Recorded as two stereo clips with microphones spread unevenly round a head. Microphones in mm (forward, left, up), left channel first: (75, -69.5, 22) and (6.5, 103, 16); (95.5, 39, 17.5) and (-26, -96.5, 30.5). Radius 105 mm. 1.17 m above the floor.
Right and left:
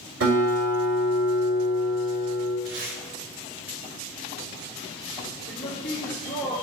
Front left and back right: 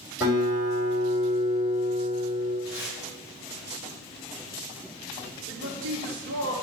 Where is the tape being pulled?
95° left, 2.5 m.